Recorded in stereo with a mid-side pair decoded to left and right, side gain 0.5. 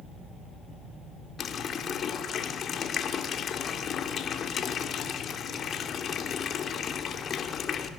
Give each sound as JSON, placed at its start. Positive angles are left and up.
{"t": 1.4, "sound": "a running tap", "azimuth_deg": 50, "distance_m": 2.5}